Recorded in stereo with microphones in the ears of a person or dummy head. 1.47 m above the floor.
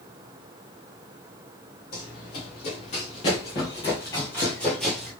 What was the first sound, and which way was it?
Running footsteps, 50° left (ahead or behind).